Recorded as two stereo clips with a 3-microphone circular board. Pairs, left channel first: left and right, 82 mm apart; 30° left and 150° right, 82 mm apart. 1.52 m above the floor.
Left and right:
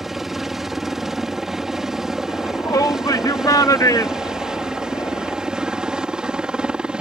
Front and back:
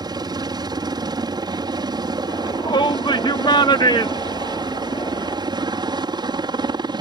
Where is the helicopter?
175° right; by 7.0 s 170° right.